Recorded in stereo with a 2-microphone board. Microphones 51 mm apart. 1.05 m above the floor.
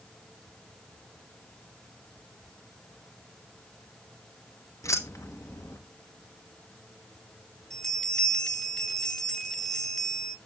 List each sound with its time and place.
4.8 s keys jangling: 85° left, 1.0 m
7.7 s a bell: 10° left (ahead or behind), 1.2 m